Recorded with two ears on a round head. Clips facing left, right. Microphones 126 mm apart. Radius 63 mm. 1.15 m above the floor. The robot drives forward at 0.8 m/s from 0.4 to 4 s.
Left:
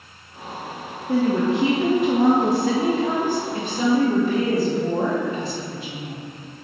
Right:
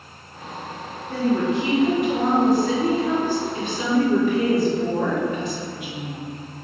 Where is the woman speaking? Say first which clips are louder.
Left 2 dB; 60° left (ahead or behind), 1.3 m; by 6.2 s 30° left (ahead or behind), 2 m.